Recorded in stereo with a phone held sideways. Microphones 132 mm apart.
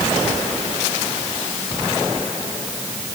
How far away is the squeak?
No squeak in this recording.